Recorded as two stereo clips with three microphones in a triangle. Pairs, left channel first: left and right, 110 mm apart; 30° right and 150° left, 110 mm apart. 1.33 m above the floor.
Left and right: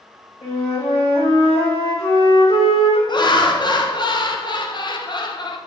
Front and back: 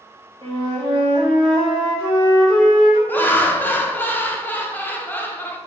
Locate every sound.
0.4 s a flute: 115° left, 2 m
3.1 s laughter: 40° left, 0.7 m